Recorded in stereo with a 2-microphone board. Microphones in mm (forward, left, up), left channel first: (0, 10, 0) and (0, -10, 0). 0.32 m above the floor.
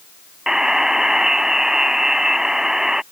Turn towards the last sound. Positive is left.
turn(degrees=-30)  # may be behind; listen again after turning